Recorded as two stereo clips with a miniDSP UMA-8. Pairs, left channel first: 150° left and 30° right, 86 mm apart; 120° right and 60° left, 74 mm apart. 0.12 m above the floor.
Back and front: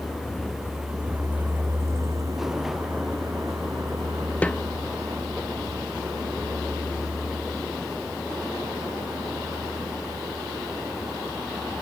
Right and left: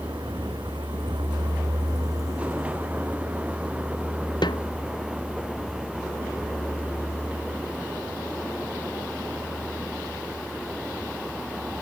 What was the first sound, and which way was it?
A vehicle, 65° left.